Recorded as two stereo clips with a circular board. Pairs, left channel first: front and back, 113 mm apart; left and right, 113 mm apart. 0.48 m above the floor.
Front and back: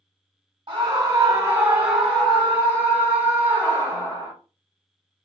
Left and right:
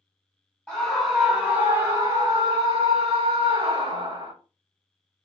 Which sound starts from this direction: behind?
A scream, at 0.7 s.